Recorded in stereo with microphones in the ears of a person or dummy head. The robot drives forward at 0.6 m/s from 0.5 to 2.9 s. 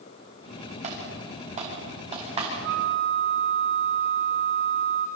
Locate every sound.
0.8 s typing on a keyboard: 40° right (ahead or behind), 4.5 m; by 2.5 s 30° right (ahead or behind), 5 m
2.6 s a flute: 60° right (ahead or behind), 2.5 m